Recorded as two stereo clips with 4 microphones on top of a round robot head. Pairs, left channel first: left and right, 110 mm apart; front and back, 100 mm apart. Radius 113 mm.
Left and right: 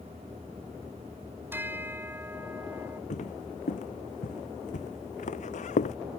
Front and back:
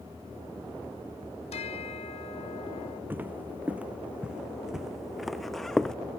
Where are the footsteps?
110° left; by 6.0 s 85° left.